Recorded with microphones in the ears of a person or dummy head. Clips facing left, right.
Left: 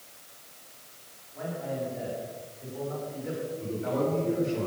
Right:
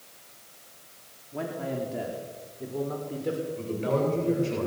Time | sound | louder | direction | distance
1.3 | a man speaking | right 2 dB | 75° right (ahead or behind) | 3.5 m
3.6 | a man speaking | right 1 dB | 75° right (ahead or behind) | 9 m